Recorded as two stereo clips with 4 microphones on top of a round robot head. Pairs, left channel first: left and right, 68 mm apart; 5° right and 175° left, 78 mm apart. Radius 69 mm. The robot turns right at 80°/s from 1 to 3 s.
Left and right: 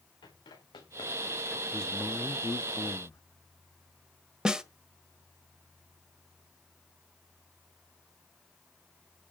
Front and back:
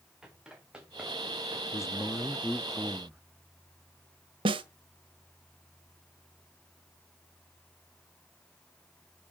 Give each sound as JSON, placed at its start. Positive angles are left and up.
{"t": 0.2, "sound": "running footsteps", "azimuth_deg": 90, "distance_m": 5.5}
{"t": 1.7, "sound": "a man speaking", "azimuth_deg": 5, "distance_m": 1.1}
{"t": 4.5, "sound": "a snare drum", "azimuth_deg": -170, "distance_m": 1.3}